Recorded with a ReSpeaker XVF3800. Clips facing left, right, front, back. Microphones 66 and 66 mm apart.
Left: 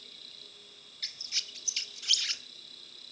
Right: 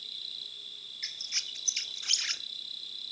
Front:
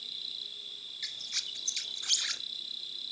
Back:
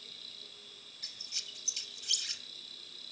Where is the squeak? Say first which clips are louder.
Right 1 dB, front 7 dB; 25° right, 0.7 m.